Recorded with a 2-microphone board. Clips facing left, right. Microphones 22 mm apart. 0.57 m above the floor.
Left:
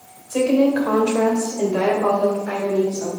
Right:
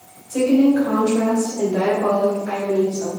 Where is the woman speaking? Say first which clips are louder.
Right 2 dB; 40° left (ahead or behind), 2 m; by 3.1 s 60° left (ahead or behind), 2.5 m.